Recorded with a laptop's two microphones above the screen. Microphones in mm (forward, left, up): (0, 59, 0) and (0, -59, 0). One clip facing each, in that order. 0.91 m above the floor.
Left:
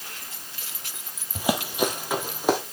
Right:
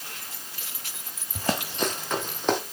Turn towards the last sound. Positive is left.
turn(degrees=10)  # may be behind; listen again after turning